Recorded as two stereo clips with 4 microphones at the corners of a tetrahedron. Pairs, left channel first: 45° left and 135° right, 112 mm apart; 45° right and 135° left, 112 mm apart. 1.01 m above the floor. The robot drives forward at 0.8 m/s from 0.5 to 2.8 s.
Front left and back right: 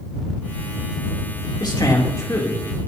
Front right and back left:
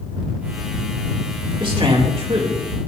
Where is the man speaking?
95° left, 3 m; by 2.8 s 115° left, 3 m.